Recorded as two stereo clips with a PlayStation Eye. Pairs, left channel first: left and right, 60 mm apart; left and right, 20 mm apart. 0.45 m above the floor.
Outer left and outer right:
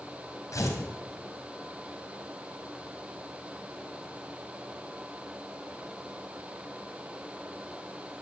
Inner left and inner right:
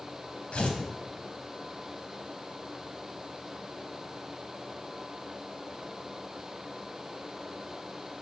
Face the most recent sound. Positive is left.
turn(degrees=70)  # may be behind; listen again after turning